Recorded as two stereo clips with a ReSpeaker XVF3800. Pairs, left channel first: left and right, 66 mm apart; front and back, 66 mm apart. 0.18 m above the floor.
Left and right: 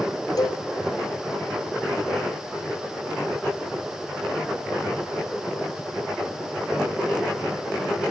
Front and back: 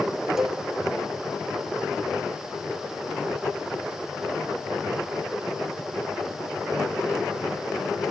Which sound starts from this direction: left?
A cowbell, at 0.4 s.